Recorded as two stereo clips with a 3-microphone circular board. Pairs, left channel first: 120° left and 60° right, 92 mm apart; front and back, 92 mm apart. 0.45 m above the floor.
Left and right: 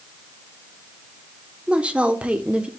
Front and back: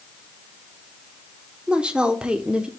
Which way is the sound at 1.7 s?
115° right.